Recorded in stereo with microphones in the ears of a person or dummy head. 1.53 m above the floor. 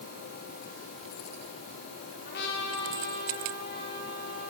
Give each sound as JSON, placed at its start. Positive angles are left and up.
{"t": 2.2, "sound": "a trumpet", "side_deg": 65, "distance_m": 4.5}